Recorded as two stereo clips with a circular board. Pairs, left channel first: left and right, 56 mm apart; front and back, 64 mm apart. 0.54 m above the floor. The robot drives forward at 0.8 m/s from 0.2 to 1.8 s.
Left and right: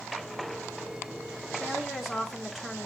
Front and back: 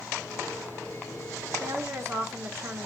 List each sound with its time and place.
1.6 s a woman speaking: 175° right, 1.0 m